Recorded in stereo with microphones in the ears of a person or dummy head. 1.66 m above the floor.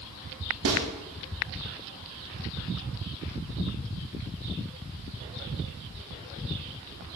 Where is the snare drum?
80° right, 1.2 m.